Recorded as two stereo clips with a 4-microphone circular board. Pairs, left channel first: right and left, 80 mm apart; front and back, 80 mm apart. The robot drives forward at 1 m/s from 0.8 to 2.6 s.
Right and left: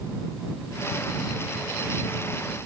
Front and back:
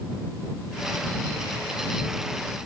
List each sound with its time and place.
Only background noise.